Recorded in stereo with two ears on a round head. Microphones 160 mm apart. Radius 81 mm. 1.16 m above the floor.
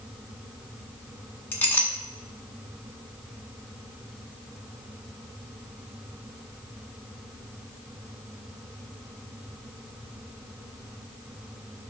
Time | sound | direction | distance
1.5 | a clink | 10° left (ahead or behind) | 1.4 m